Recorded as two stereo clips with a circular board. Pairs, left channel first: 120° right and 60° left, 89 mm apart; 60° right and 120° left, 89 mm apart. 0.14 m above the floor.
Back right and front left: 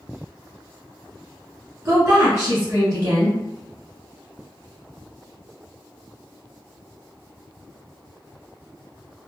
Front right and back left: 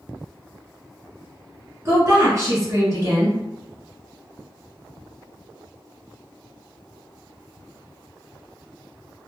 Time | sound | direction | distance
1.9 | a woman speaking | 85° left | 1.5 m